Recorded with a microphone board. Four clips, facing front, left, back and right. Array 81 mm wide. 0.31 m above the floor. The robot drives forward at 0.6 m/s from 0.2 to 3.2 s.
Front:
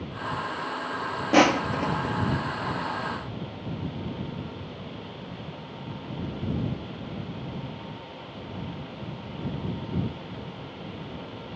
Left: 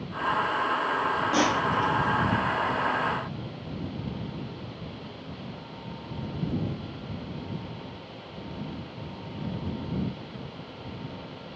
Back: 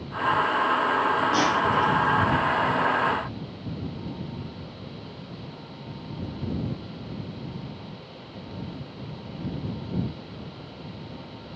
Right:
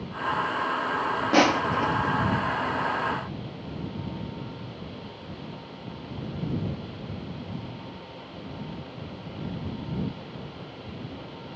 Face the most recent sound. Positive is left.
turn(degrees=-100)